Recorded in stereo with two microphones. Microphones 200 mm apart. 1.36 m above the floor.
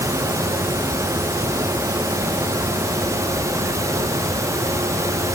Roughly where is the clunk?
No clunk in this recording.